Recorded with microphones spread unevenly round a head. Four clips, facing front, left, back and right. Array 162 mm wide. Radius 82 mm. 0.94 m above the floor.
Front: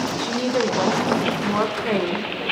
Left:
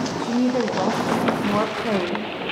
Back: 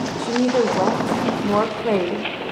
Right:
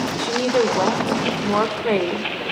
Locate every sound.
0.2 s a woman speaking: 135° right, 0.8 m